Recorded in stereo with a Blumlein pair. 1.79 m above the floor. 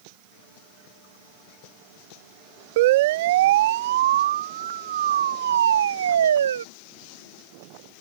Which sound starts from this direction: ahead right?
A siren, at 2.8 s.